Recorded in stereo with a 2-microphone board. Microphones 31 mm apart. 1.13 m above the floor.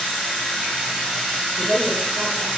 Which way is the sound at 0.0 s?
25° left (ahead or behind).